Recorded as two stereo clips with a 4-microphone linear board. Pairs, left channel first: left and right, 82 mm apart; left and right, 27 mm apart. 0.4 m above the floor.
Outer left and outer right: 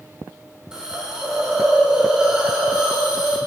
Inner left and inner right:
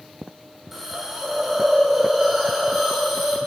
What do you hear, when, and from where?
0.7 s a hiss: 10° right (ahead or behind), 0.9 m